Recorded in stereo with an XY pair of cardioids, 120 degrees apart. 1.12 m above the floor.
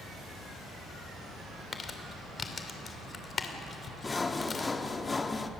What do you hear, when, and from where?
1.7 s crumpling: 30° left, 2.5 m
4.0 s sawing: 20° left, 1.2 m